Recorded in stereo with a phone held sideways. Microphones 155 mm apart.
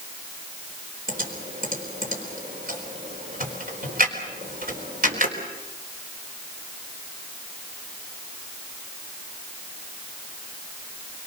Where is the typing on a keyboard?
65° right (ahead or behind), 4 m.